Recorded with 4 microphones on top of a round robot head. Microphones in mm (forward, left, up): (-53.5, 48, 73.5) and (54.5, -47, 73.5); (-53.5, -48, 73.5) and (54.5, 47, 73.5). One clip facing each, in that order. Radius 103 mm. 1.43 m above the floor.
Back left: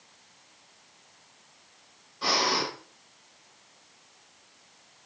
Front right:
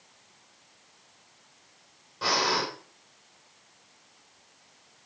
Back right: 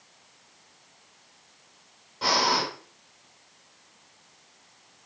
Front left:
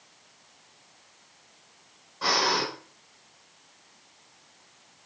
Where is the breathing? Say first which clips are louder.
Even, back right 1 dB; 80° right, 6 m.